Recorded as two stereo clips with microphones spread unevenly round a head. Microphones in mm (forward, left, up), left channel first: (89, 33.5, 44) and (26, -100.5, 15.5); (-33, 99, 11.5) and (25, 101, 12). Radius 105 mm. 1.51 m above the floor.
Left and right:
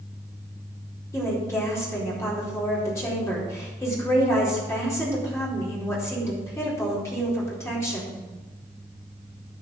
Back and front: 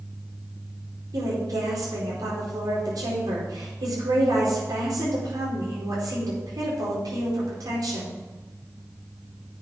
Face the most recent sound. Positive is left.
turn(degrees=-5)